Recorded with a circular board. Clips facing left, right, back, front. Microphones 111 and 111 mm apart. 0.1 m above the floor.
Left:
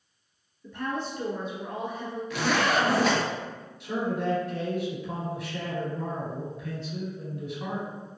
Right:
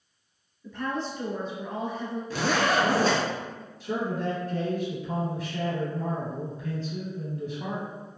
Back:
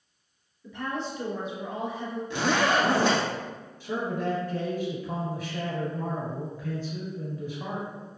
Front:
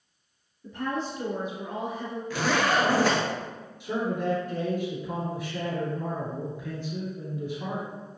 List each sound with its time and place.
0.6 s a woman speaking: 5° left, 1.7 m
2.3 s a zipper: 125° right, 0.7 m
3.8 s a man speaking: 65° right, 2.0 m